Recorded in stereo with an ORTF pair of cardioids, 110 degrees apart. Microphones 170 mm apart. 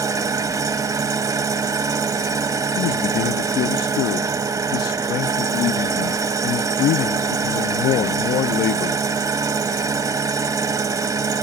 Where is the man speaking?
65° left, 0.6 m.